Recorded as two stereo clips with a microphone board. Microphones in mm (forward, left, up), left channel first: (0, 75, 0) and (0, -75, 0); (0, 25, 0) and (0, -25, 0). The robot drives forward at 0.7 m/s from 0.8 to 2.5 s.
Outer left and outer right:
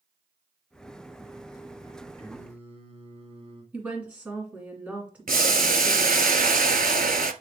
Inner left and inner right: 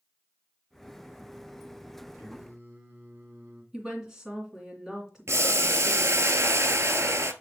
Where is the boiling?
75° right (ahead or behind), 0.6 m.